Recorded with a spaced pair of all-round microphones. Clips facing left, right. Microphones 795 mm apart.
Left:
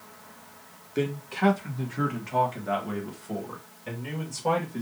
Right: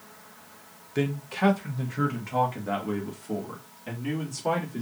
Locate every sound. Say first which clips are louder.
0.9 s a man speaking: even; 35° right (ahead or behind), 0.9 m; by 4.8 s 20° left (ahead or behind), 2.5 m